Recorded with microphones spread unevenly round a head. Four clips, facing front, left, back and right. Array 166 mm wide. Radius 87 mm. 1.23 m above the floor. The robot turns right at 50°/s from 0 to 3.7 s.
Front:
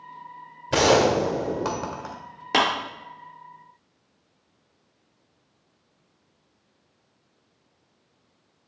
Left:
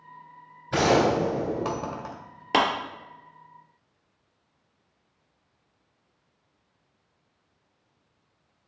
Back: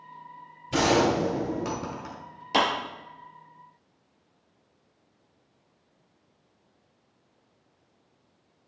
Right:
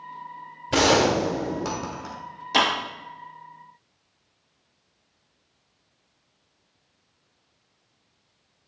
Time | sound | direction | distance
0.7 | a gunshot | 40° right | 1.2 m
2.5 | a clap | 40° left | 2.5 m